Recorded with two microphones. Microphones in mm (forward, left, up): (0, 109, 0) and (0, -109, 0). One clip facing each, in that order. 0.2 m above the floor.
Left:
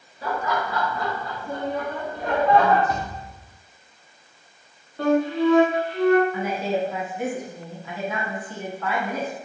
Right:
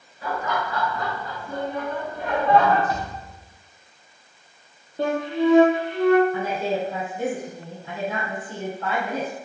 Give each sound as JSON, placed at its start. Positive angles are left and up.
{"t": 0.2, "sound": "laughter", "side_deg": 35, "distance_m": 2.0}
{"t": 2.9, "sound": "a thud", "side_deg": 65, "distance_m": 1.4}
{"t": 5.0, "sound": "a flute", "side_deg": -20, "distance_m": 0.9}
{"t": 6.3, "sound": "a woman speaking", "side_deg": -35, "distance_m": 1.7}